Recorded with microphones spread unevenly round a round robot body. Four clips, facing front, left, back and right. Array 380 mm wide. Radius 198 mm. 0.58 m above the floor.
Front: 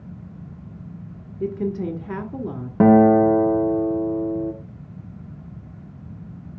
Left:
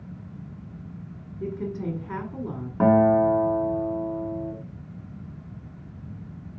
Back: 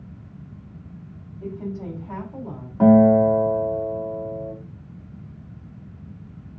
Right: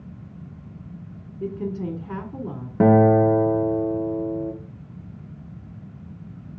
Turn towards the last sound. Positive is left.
turn(degrees=-30)